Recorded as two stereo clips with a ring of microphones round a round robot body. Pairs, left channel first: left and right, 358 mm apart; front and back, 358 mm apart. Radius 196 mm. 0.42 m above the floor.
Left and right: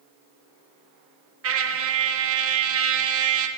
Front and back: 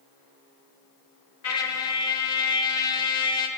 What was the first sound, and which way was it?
A trumpet, 40° right.